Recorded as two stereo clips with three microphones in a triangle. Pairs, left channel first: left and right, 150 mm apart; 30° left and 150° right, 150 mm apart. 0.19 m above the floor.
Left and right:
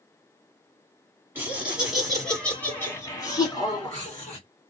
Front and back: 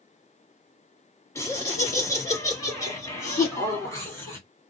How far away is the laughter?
About 2.0 m.